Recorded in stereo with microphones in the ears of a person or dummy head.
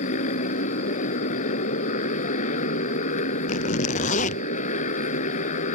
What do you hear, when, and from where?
0.0 s a motorcycle: 35° left (ahead or behind)
3.5 s a zipper: 40° left (ahead or behind)